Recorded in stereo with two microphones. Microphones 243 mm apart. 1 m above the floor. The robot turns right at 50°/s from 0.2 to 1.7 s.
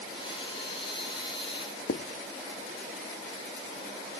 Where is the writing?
65° left (ahead or behind), 0.8 m.